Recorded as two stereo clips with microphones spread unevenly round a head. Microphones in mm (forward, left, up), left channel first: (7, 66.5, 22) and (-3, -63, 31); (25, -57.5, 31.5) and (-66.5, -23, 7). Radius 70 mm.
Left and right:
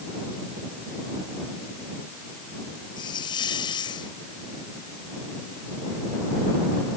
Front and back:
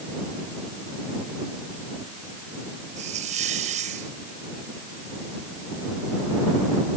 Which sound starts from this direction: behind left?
A hiss, at 3.0 s.